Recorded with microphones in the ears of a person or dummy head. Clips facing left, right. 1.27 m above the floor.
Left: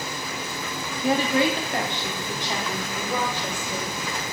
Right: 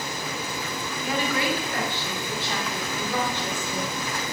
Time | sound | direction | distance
1.0 | a woman speaking | 35° left (ahead or behind) | 1.9 m